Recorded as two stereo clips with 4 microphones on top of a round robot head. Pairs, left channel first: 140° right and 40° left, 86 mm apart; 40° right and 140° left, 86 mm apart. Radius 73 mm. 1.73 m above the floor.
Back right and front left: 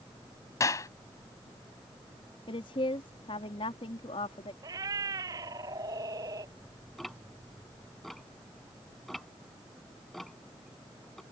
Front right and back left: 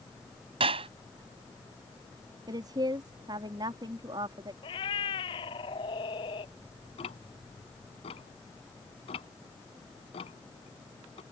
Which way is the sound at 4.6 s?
10° right.